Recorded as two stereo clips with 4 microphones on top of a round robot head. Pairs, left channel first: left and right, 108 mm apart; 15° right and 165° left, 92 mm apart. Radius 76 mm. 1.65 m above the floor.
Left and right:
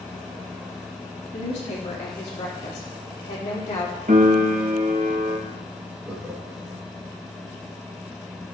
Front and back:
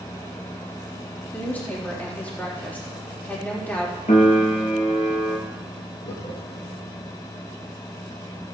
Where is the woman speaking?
60° left, 4 m.